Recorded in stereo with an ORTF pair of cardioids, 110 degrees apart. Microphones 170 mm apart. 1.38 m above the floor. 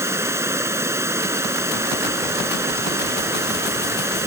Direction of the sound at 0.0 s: 15° right.